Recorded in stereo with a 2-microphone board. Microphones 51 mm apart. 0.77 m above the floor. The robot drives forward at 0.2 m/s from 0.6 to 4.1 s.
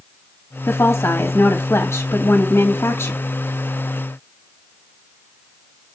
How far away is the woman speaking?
About 1.5 m.